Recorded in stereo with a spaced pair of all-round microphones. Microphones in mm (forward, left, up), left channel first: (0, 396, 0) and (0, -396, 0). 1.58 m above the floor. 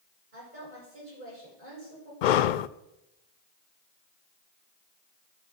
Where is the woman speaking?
75° right (ahead or behind), 9 m.